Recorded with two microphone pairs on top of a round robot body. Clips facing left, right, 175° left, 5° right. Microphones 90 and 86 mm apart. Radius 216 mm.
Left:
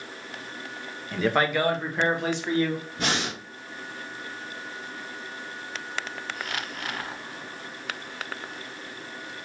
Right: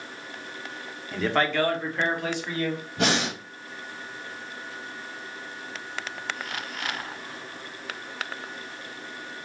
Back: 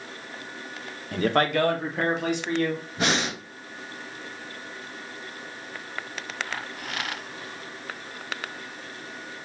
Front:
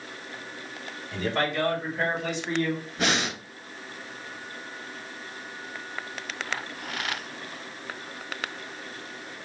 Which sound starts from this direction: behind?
A man speaking, at 1.1 s.